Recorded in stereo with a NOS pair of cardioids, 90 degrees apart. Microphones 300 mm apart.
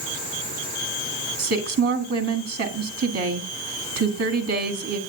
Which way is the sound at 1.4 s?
55° right.